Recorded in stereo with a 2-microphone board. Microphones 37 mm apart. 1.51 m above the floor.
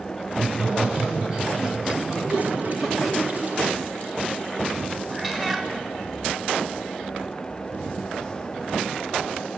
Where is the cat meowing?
10° right (ahead or behind), 1.5 m.